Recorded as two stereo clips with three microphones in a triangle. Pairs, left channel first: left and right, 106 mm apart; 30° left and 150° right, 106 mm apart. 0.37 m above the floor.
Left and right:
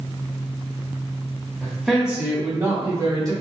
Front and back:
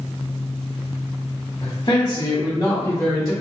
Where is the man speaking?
20° left, 1.1 m; by 3.3 s 55° right, 1.3 m.